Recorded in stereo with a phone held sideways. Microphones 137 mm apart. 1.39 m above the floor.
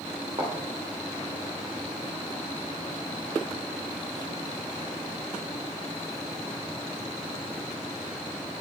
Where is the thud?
45° right (ahead or behind), 2 m.